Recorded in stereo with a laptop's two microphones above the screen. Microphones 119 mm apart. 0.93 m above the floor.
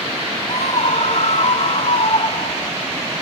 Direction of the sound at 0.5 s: 70° left (ahead or behind).